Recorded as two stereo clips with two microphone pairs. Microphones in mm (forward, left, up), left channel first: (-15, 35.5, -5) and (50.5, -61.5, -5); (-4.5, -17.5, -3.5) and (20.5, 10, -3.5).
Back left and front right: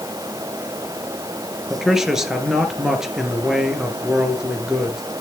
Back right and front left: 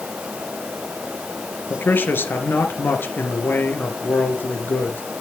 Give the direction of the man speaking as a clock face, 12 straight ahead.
5 o'clock.